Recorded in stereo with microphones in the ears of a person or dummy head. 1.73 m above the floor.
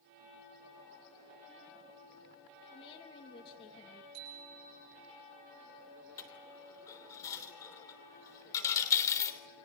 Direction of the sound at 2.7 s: 25° left (ahead or behind).